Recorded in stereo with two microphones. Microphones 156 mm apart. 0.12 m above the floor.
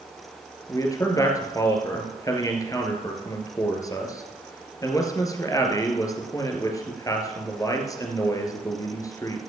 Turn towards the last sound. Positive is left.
turn(degrees=20)  # may be behind; listen again after turning